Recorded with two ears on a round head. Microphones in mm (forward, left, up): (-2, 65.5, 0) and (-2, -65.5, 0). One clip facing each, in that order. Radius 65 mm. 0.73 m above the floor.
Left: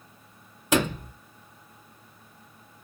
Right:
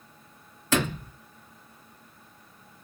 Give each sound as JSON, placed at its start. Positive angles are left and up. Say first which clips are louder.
{"t": 0.7, "sound": "a sliding door", "louder": "left 2 dB", "side_deg": 15, "distance_m": 1.3}